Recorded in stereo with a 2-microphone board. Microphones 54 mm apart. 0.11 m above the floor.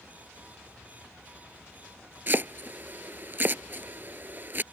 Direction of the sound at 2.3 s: 40° right (ahead or behind).